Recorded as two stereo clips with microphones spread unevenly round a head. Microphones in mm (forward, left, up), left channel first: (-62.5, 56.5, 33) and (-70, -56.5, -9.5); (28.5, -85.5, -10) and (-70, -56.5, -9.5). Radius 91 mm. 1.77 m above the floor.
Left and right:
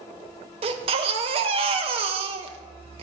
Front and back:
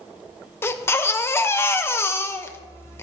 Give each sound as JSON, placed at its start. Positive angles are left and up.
{"t": 0.6, "sound": "a baby crying", "azimuth_deg": -55, "distance_m": 1.0}